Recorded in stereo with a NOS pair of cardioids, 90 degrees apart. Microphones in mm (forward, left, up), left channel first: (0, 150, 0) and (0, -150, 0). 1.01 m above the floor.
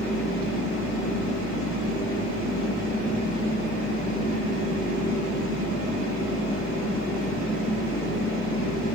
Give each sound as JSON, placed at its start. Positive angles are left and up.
{"t": 0.0, "sound": "a machine running", "azimuth_deg": 60, "distance_m": 1.9}